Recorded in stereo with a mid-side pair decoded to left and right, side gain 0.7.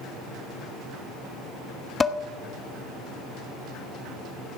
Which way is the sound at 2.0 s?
20° left.